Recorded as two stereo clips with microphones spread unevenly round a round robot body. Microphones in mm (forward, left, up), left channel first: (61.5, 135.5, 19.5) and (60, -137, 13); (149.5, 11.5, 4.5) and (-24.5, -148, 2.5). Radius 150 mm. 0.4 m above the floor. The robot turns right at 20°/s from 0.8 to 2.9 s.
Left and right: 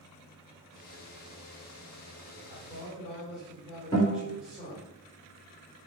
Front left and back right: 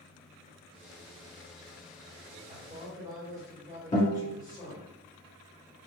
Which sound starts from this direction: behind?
A man speaking, at 2.5 s.